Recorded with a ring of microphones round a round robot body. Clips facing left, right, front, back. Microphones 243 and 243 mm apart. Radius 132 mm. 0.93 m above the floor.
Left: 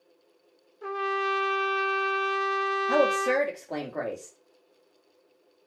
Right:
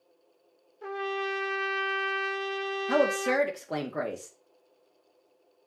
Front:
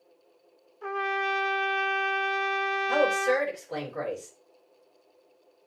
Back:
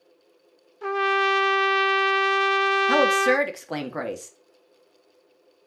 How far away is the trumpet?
About 0.7 m.